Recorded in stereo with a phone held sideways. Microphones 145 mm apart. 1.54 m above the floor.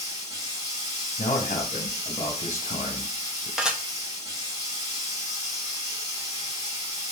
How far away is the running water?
About 1.7 m.